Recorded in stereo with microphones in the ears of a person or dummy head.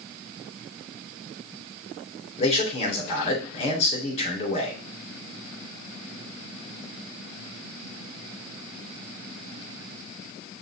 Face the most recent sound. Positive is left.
turn(degrees=35)  # may be behind; listen again after turning